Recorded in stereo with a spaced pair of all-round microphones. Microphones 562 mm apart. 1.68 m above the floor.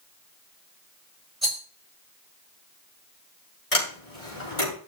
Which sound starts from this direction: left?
A sliding door, at 3.7 s.